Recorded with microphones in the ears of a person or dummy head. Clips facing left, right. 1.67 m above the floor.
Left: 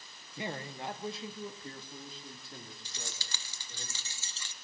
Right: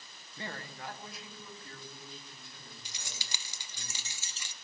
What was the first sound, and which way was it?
A man speaking, 15° left (ahead or behind).